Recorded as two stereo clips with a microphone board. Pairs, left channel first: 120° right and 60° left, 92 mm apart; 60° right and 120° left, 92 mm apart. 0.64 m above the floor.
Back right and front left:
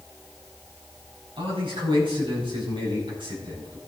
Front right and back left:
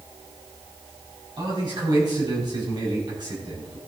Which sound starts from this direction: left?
A man speaking, at 1.4 s.